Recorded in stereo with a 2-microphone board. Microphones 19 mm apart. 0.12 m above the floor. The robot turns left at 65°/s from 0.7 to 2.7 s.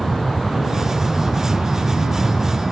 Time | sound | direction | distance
0.0 | an aircraft | 5° right (ahead or behind) | ?